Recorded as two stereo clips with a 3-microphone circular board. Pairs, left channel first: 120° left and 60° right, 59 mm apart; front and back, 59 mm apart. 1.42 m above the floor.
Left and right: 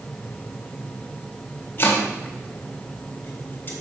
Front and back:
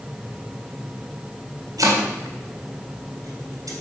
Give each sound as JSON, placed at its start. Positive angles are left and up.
{"t": 1.8, "sound": "chopping", "azimuth_deg": 175, "distance_m": 3.5}